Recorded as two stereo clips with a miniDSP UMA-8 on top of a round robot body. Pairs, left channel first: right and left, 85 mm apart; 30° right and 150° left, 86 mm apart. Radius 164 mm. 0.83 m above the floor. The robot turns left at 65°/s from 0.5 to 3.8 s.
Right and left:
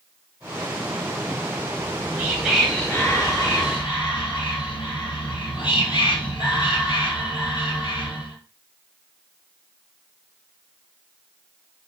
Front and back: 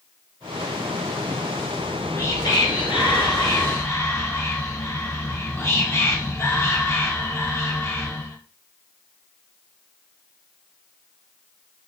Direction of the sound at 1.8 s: 45° left.